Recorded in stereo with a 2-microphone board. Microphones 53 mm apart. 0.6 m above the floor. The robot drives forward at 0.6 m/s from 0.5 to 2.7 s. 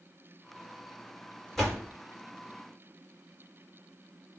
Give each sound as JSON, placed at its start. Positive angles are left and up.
{"t": 1.6, "sound": "a door slam", "side_deg": 5, "distance_m": 1.2}